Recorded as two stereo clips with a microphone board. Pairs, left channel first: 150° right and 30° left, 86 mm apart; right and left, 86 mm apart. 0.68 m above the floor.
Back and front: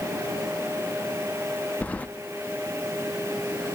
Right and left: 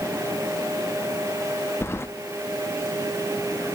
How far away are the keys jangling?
About 0.6 m.